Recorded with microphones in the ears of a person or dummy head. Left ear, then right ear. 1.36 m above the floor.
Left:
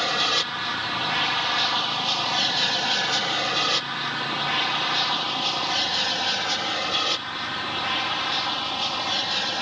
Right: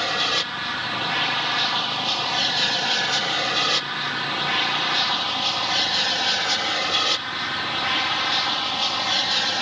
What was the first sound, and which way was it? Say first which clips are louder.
An aircraft: even; 5° left (ahead or behind).